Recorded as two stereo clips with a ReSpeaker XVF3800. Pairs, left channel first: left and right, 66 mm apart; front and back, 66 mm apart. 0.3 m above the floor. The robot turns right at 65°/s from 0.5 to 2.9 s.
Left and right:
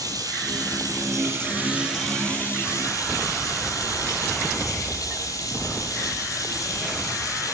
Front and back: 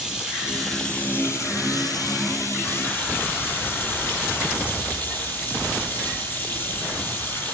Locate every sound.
0.0 s running water: 100° right, 4 m; by 7.5 s 55° left, 4 m